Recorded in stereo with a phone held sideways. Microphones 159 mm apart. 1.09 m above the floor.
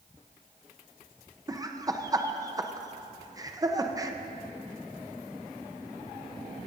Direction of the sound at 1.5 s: 20° right (ahead or behind).